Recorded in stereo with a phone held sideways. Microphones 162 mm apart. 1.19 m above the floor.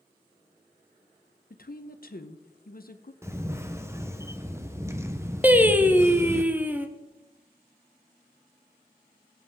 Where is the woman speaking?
65° left (ahead or behind), 0.9 m.